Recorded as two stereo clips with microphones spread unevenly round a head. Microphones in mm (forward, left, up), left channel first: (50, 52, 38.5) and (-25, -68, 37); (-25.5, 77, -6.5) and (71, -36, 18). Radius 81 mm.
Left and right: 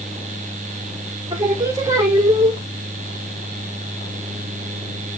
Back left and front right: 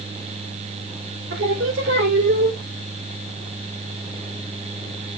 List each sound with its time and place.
1.3 s singing: 60° right, 2.5 m